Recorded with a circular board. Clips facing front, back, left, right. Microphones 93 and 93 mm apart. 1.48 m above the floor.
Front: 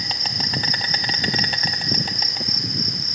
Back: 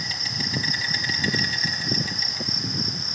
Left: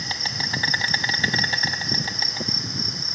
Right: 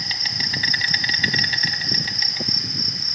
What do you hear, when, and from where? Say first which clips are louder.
0.0 s an insect: front 3 dB, left 1 dB; 30° left, 1.1 m